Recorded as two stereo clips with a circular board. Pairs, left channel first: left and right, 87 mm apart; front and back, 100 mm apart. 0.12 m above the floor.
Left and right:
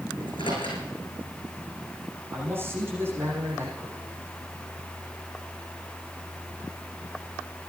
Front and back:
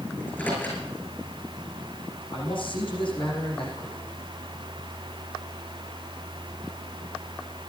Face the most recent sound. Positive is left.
turn(degrees=-30)